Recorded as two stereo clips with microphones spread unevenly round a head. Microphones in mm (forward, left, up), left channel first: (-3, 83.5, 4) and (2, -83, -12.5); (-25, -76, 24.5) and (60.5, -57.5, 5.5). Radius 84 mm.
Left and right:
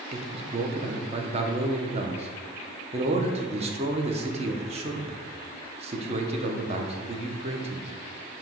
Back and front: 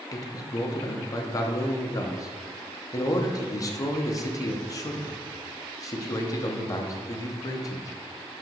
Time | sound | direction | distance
0.1 | a man speaking | 140° right | 0.8 m